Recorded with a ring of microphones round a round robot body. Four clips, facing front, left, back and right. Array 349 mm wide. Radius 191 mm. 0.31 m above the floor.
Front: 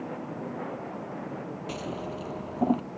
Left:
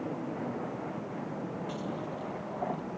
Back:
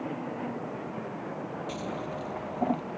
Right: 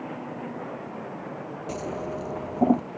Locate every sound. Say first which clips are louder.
1.7 s scissors: right 5 dB, front 2 dB; 80° right